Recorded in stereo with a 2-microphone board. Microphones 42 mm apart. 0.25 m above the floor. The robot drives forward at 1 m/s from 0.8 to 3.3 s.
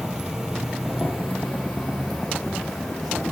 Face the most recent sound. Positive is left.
turn(degrees=-5)  # may be behind; listen again after turning